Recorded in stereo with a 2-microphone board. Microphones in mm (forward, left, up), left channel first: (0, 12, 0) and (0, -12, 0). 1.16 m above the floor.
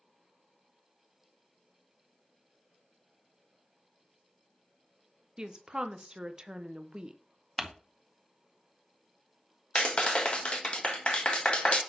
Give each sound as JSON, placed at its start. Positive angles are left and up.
{"t": 5.4, "sound": "a woman speaking", "side_deg": -35, "distance_m": 0.6}
{"t": 7.6, "sound": "crumpling", "side_deg": 5, "distance_m": 0.7}
{"t": 9.8, "sound": "a clap", "side_deg": 50, "distance_m": 1.2}